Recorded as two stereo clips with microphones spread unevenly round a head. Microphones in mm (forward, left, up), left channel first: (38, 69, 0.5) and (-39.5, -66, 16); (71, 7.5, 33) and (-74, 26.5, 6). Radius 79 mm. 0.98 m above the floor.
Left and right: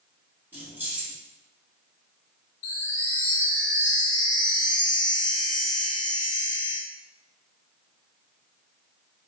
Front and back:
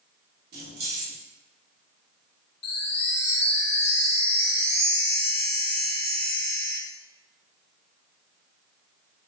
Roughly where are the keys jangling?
Behind.